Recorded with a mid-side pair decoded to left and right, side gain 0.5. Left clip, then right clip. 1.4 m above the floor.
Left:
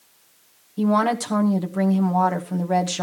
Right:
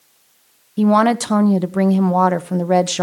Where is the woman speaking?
40° right, 1.3 m.